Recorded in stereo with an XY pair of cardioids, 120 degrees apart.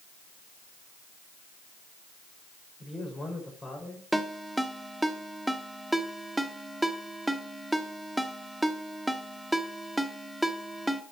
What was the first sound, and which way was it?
A man speaking, 20° left.